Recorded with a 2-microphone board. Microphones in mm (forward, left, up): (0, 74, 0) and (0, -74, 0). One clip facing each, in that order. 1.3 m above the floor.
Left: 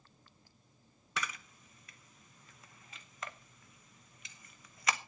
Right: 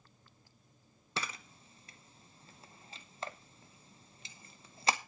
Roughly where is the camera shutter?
Right.